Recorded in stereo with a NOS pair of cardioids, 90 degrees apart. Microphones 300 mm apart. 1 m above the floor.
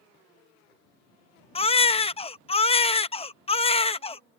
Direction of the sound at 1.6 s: 20° left.